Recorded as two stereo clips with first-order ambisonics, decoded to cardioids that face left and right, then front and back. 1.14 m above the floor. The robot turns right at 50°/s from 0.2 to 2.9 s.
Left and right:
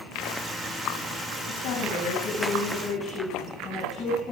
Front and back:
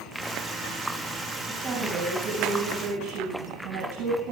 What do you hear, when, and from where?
1.5 s a woman speaking: 90° left, 9 m; by 4.3 s 160° left, 9 m